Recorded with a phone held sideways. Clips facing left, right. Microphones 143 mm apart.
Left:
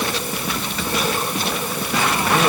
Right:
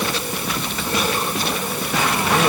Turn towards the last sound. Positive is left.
No sound to turn to.